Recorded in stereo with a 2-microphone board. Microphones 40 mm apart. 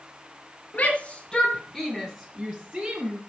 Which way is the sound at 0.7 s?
40° left (ahead or behind).